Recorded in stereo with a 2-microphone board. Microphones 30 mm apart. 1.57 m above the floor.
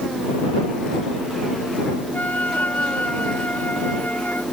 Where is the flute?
80° left.